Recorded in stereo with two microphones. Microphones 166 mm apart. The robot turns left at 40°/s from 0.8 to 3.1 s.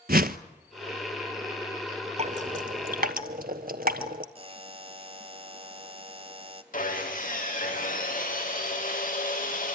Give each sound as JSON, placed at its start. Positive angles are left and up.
{"t": 0.1, "sound": "a whoosh", "side_deg": -65, "distance_m": 0.8}
{"t": 2.2, "sound": "dripping", "side_deg": -40, "distance_m": 1.2}
{"t": 4.3, "sound": "a buzzer", "side_deg": -35, "distance_m": 0.8}
{"t": 6.7, "sound": "sawing", "side_deg": 55, "distance_m": 5.5}